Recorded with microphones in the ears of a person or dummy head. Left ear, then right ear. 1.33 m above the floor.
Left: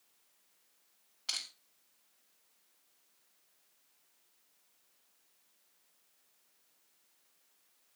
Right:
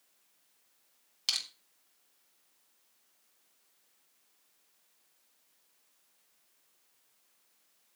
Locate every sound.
1.3 s crushing: 90° right, 3.5 m